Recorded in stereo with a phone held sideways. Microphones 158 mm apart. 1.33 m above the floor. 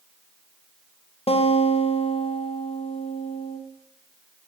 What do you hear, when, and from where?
1.3 s a guitar: 35° left (ahead or behind), 0.7 m